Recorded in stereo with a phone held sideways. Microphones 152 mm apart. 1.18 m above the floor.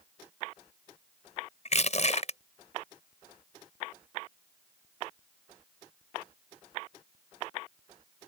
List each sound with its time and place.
1.6 s crushing: 50° left (ahead or behind)